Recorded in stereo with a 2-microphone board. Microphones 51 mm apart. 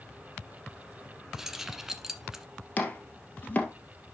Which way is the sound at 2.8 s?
30° left (ahead or behind).